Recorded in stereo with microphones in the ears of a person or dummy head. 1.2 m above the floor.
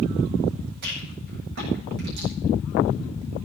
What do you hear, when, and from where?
0.8 s a rattle: 60° right (ahead or behind), 9 m